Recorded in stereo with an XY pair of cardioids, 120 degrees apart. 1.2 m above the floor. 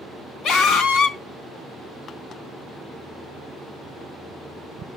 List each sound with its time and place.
0.4 s a scream: 65° left, 2.5 m